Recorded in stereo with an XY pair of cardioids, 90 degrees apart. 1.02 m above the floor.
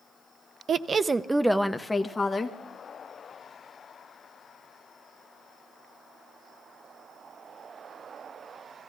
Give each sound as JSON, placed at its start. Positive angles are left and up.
{"t": 0.7, "sound": "a woman speaking", "azimuth_deg": -60, "distance_m": 0.6}